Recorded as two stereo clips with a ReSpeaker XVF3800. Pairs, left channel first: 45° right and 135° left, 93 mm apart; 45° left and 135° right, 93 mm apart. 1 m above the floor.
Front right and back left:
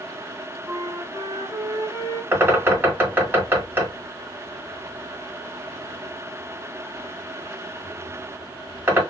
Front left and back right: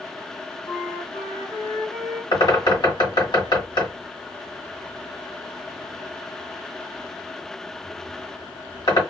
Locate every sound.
0.7 s a flute: 85° left, 1.5 m
2.3 s a bird: 70° left, 1.8 m